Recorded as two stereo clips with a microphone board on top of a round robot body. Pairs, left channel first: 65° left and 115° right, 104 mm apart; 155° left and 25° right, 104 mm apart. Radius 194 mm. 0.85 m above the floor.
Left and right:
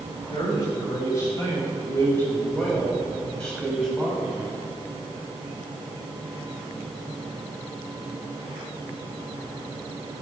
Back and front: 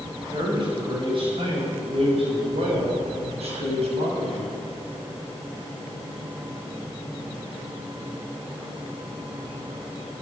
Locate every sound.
0.3 s a man speaking: 15° left, 5.5 m; by 4.5 s 20° right, 6.5 m